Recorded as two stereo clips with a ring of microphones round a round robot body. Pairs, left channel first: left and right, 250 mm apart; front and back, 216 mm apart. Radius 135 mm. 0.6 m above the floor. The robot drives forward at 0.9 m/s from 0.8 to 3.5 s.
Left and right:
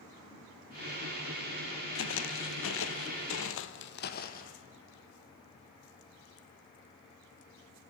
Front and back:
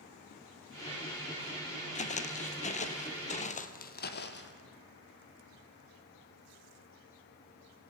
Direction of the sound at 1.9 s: 55° left.